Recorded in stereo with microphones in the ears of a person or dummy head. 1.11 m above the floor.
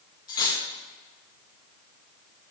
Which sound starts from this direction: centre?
Cutlery clinking, at 0.3 s.